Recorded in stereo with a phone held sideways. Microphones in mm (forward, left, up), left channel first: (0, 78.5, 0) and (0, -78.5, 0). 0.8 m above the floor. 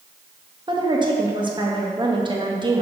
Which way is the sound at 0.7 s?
30° right (ahead or behind).